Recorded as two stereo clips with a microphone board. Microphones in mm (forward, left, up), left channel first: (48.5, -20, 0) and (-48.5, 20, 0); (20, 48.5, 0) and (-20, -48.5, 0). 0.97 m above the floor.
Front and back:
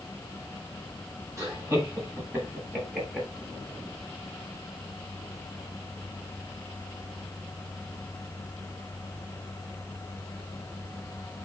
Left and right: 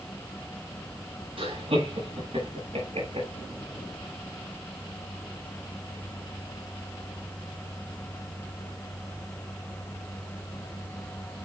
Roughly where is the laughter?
Behind right.